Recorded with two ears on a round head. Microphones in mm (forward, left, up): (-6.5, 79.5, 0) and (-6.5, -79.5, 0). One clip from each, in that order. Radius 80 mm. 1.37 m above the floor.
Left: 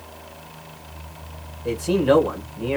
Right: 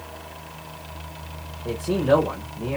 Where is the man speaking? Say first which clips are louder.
Left 2 dB; 70° left (ahead or behind), 1.6 m.